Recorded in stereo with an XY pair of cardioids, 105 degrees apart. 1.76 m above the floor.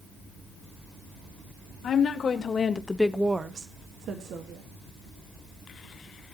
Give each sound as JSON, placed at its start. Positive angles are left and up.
{"t": 1.8, "sound": "a woman speaking", "azimuth_deg": 55, "distance_m": 2.5}